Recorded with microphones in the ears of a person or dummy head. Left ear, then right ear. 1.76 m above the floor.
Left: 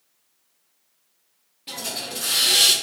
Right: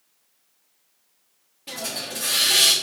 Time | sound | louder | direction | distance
1.7 | a hiss | even | 5° right (ahead or behind) | 0.6 m